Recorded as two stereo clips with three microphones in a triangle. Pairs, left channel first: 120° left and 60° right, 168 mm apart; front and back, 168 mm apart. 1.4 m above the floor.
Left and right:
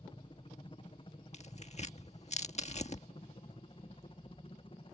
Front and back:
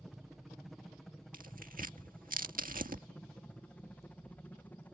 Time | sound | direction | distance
0.0 | a helicopter | 90° left | ?
1.3 | tearing paper | 160° left | ?